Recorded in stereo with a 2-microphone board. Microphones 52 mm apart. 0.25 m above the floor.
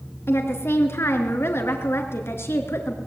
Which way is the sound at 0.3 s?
55° left (ahead or behind).